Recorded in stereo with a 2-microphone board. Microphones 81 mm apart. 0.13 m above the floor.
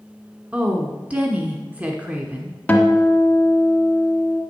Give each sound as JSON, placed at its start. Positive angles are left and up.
{"t": 0.5, "sound": "a woman speaking", "side_deg": -15, "distance_m": 1.2}
{"t": 2.7, "sound": "a guitar", "side_deg": 20, "distance_m": 1.5}